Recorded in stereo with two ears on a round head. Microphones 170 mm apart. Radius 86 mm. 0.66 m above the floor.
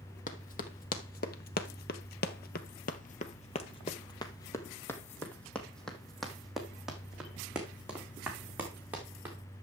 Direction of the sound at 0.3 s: 45° left (ahead or behind).